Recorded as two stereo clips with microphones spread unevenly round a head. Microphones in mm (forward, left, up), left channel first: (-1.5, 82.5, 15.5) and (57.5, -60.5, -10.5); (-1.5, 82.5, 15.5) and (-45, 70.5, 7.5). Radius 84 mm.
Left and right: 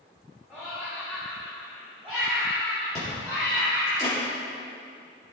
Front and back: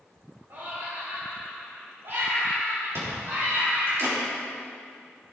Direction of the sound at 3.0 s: 175° right.